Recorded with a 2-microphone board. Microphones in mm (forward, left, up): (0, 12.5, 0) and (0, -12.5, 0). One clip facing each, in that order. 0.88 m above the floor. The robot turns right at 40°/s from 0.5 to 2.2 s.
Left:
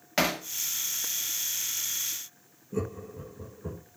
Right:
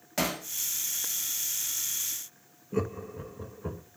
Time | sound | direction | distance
0.2 | hammering | 40° left (ahead or behind) | 1.4 m
2.7 | laughter | 35° right (ahead or behind) | 1.3 m